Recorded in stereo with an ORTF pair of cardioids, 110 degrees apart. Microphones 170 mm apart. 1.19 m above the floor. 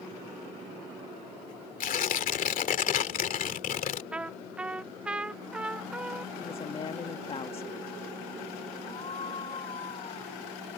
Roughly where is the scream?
Ahead left.